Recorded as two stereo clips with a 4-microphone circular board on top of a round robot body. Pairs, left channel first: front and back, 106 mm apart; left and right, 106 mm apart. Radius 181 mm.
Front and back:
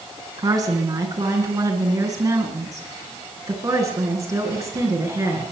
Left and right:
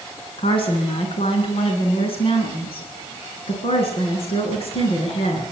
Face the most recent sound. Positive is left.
turn(degrees=120)